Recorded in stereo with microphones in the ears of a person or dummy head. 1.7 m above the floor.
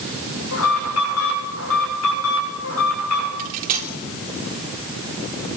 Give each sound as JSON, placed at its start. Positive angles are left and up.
{"t": 0.5, "sound": "an alarm", "side_deg": 80, "distance_m": 8.0}
{"t": 3.4, "sound": "cutlery clinking", "side_deg": -45, "distance_m": 3.0}